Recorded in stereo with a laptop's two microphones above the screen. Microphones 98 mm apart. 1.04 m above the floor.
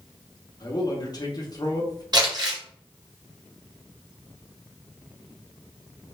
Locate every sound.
0.6 s a man speaking: 40° left (ahead or behind), 0.7 m
2.1 s crumpling: 40° right (ahead or behind), 0.9 m